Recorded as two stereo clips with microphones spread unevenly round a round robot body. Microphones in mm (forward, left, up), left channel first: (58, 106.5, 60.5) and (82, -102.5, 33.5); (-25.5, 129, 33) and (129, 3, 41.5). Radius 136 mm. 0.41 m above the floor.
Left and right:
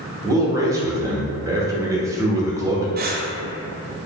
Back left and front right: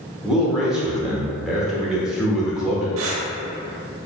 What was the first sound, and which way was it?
A man speaking, 130° right.